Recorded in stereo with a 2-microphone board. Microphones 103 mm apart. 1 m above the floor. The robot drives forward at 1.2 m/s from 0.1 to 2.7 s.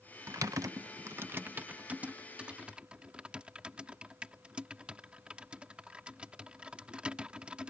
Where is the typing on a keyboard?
30° right (ahead or behind); by 7.7 s 10° right (ahead or behind).